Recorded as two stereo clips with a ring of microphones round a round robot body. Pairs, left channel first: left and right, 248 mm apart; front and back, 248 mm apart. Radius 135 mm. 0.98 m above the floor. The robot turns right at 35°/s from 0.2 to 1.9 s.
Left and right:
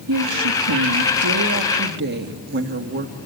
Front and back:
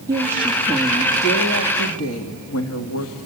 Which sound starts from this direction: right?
A woman speaking, at 0.1 s.